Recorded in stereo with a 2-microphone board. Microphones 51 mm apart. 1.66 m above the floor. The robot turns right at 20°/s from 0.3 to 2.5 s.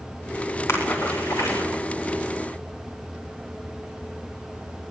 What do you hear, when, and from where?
0.7 s a splash: 65° left (ahead or behind), 8 m; by 1.7 s 85° left, 8 m